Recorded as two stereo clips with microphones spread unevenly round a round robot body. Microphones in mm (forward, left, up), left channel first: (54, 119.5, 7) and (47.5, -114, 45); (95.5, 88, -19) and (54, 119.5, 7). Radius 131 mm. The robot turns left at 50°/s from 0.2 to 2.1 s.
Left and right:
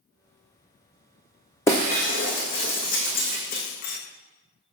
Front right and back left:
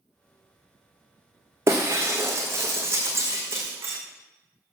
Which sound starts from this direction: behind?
Breaking glass, at 1.7 s.